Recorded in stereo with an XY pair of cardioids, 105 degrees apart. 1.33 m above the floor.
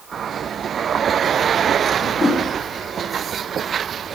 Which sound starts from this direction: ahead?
A whoosh, at 2.0 s.